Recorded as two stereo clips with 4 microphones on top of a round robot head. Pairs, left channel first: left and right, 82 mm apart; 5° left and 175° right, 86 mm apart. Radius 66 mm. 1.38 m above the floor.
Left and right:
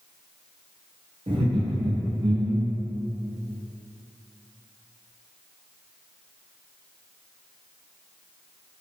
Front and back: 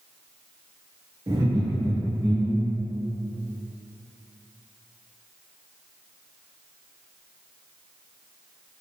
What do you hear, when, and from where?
1.3 s laughter: 120° right, 1.3 m; by 2.8 s 90° right, 3 m